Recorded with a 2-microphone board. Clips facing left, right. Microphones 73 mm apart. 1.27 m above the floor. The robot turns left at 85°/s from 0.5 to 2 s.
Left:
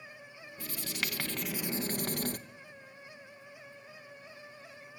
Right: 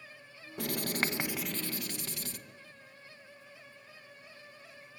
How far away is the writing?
About 1.2 m.